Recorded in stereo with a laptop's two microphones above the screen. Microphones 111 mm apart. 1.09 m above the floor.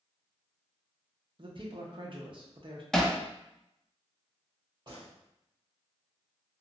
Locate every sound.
1.4 s a man speaking: 50° right (ahead or behind), 0.8 m
2.9 s hammering: 5° left (ahead or behind), 0.5 m
4.9 s a gunshot: 45° right (ahead or behind), 1.7 m